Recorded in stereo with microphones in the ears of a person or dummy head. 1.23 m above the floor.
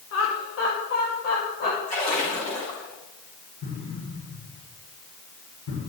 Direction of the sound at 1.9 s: 35° left (ahead or behind).